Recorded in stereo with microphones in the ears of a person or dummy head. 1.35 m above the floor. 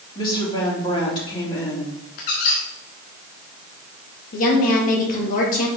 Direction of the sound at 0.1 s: 25° left (ahead or behind).